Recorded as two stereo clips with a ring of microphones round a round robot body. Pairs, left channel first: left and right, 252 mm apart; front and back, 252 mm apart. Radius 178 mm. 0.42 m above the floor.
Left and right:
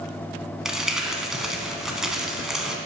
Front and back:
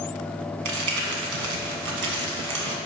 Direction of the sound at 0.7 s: Straight behind.